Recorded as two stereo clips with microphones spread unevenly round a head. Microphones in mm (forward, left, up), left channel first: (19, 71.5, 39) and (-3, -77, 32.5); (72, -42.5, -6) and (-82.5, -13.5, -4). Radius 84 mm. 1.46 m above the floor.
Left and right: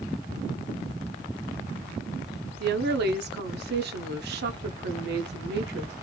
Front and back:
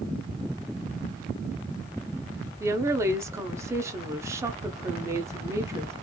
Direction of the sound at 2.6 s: 115° right.